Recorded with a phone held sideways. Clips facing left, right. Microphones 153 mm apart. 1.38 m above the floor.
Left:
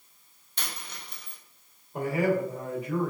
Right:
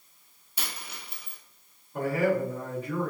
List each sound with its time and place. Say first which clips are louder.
0.6 s a dropped coin: even; 5° right (ahead or behind), 0.7 m
1.9 s a man speaking: even; 15° left (ahead or behind), 1.5 m